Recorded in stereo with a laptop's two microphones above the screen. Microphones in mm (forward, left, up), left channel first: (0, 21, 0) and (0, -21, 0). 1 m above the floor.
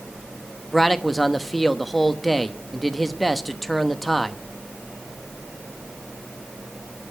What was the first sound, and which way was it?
A man speaking, 5° left (ahead or behind).